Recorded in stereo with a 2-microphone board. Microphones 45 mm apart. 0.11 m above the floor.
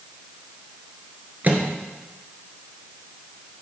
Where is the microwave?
40° right (ahead or behind), 1.7 m.